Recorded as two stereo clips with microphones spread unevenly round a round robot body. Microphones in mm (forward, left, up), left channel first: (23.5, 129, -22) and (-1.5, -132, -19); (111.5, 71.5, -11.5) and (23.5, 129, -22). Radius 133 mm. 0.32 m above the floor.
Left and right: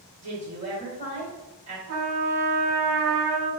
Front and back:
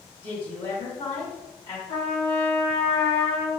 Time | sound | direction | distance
0.2 | a woman speaking | 45° right | 1.7 m
1.9 | a trumpet | 65° right | 1.4 m